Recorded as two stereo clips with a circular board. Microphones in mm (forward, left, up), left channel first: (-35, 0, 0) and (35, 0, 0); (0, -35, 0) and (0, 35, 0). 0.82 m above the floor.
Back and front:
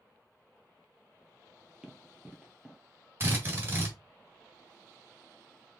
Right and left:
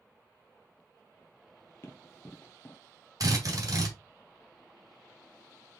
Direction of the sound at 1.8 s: 70° right.